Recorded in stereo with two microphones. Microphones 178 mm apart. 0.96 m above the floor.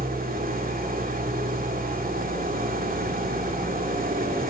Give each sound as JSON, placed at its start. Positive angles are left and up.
{"t": 0.0, "sound": "an engine running", "side_deg": -55, "distance_m": 2.5}